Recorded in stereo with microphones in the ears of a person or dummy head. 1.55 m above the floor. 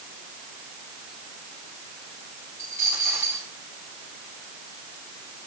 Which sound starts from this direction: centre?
A dropped coin, at 2.6 s.